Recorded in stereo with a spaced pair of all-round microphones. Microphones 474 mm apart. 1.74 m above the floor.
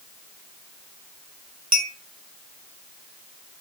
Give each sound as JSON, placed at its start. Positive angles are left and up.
{"t": 1.7, "sound": "a clink", "side_deg": -30, "distance_m": 2.5}